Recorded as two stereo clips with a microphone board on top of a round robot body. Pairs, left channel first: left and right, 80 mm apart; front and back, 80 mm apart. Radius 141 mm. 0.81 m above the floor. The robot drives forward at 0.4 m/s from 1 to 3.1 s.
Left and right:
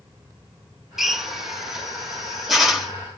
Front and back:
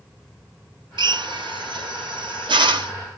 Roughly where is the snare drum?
I don't hear a snare drum.